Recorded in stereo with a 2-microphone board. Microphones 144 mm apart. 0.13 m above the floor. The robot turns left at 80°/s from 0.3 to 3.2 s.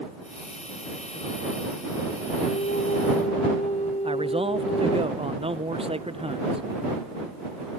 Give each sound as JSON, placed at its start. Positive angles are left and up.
{"t": 2.4, "sound": "a flute", "azimuth_deg": 115}
{"t": 4.0, "sound": "a man speaking", "side_deg": -40}